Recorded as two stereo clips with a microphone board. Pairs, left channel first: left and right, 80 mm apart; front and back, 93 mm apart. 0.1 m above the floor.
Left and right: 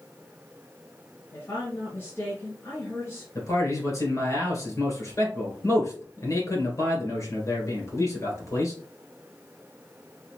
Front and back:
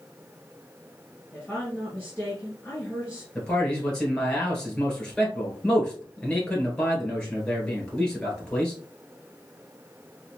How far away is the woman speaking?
About 1.9 m.